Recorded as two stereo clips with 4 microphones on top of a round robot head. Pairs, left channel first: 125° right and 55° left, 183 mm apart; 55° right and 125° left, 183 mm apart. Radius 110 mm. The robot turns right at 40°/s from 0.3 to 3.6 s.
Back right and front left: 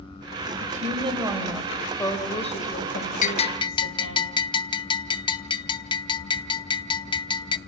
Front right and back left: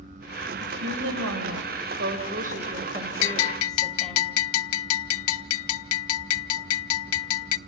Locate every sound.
0.6 s a woman speaking: 100° left, 4.5 m; by 4.2 s 140° right, 4.5 m
3.2 s a bell: 75° right, 0.7 m; by 7.6 s 60° right, 0.7 m